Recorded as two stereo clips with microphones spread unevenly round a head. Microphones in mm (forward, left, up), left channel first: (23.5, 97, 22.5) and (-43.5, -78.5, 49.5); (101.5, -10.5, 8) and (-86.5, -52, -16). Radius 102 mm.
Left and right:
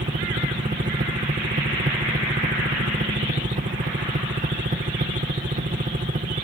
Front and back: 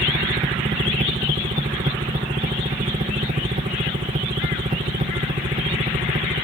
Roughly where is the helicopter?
Behind right.